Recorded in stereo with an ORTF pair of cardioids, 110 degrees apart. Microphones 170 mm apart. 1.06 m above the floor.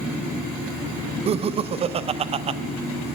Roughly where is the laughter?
Ahead right.